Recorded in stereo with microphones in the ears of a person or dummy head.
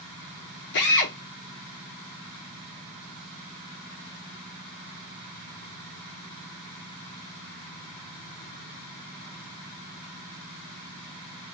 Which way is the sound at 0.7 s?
60° left (ahead or behind).